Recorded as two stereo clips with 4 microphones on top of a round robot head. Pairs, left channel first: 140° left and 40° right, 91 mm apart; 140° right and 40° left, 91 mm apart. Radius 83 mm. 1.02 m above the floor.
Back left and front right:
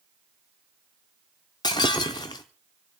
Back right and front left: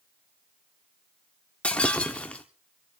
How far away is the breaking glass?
About 0.6 m.